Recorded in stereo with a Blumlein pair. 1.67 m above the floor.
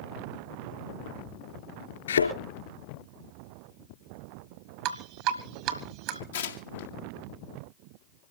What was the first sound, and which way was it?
A thud, 65° left.